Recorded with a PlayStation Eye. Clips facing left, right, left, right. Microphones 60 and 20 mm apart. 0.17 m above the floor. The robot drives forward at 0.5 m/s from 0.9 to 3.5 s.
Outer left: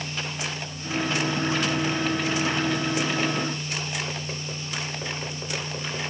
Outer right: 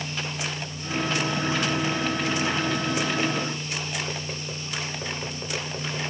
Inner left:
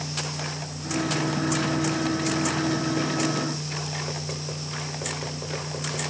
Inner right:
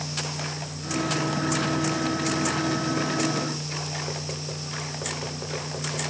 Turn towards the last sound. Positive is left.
No sound to turn to.